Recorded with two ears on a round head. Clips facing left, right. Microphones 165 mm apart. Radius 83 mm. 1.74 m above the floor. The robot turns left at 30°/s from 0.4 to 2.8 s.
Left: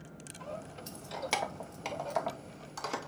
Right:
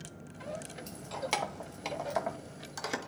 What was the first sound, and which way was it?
Keys jangling, 10° left (ahead or behind).